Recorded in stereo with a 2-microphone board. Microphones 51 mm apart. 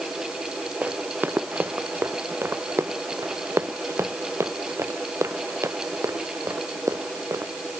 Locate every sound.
0.8 s running footsteps: 35° right (ahead or behind); by 7.5 s 75° right (ahead or behind)